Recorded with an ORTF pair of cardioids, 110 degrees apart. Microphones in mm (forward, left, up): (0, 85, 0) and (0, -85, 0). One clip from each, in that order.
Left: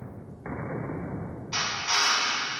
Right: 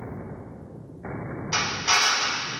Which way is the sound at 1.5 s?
70° right.